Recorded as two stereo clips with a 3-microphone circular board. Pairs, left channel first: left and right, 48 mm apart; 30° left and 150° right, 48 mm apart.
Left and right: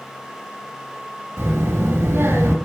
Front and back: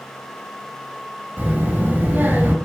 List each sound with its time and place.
1.4 s a child speaking: 100° right, 2.5 m